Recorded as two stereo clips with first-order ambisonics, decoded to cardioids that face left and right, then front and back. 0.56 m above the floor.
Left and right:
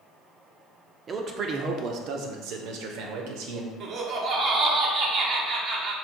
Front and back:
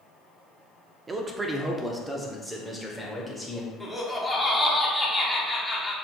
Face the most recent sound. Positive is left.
turn(degrees=-100)